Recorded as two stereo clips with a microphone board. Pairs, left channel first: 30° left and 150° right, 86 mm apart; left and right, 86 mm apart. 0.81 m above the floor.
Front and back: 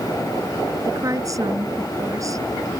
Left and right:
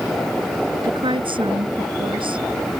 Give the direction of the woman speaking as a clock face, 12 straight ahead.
3 o'clock.